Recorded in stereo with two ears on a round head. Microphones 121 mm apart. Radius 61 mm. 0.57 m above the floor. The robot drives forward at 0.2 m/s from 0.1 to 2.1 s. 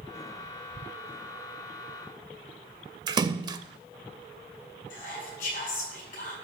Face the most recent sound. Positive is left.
turn(degrees=55)  # may be behind; listen again after turning